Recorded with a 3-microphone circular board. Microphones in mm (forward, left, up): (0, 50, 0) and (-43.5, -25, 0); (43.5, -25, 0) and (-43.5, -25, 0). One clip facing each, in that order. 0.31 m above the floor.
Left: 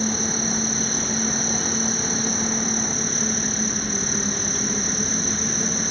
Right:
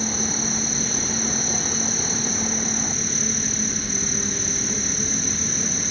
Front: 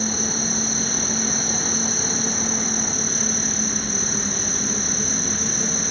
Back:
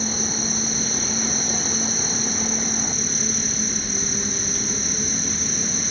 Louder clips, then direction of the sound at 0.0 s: Left 2 dB, front 1 dB; 45° left.